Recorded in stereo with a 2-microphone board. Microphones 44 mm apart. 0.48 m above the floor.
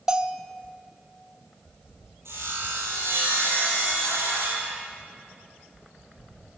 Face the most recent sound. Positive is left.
turn(degrees=-80)